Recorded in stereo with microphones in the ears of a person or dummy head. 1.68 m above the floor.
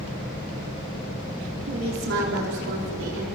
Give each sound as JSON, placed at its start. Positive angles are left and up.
{"t": 1.7, "sound": "a woman speaking", "side_deg": -65, "distance_m": 4.5}